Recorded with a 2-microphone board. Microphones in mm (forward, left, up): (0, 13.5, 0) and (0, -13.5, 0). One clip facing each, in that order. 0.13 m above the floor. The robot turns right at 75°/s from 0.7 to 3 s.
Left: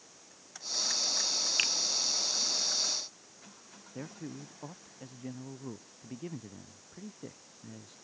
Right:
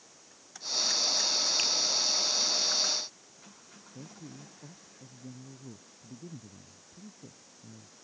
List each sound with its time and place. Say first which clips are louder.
1.6 s a finger snap: even; 25° left (ahead or behind); by 1.7 s 20° left (ahead or behind)
4.0 s a man speaking: left 5 dB; 85° left